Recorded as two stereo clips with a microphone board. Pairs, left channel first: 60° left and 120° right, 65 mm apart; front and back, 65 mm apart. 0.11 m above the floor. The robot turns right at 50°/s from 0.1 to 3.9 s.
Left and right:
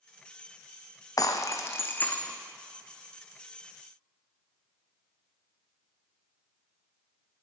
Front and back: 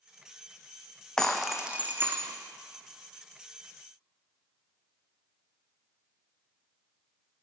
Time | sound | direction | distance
1.2 | breaking glass | 80° left | 1.2 m